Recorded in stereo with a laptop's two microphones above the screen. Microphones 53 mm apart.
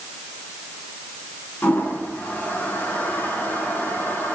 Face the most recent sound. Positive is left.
turn(degrees=35)  # may be behind; listen again after turning